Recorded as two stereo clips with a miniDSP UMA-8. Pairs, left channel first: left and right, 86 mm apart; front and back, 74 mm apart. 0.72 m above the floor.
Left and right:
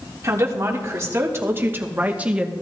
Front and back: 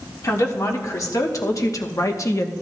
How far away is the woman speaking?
About 1.6 m.